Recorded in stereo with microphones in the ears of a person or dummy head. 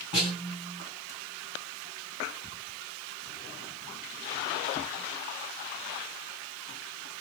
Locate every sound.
0.1 s a snare drum: 25° left (ahead or behind), 1.9 m